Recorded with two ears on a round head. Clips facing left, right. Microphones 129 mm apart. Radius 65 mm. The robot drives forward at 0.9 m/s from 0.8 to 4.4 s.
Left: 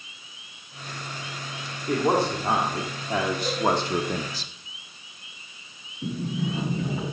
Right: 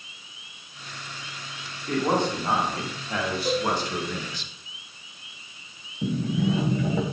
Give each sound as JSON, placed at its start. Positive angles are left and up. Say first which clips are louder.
{"t": 1.9, "sound": "a man speaking", "louder": "left 1 dB", "side_deg": 10, "distance_m": 2.5}
{"t": 3.5, "sound": "a cowbell", "louder": "right 3 dB", "side_deg": -10, "distance_m": 3.0}
{"t": 6.0, "sound": "a sliding door", "louder": "right 4 dB", "side_deg": -60, "distance_m": 3.0}